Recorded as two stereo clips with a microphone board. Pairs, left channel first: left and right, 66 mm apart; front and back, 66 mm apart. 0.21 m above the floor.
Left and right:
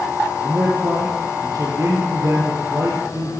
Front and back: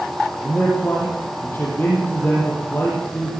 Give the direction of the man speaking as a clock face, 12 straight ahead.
2 o'clock.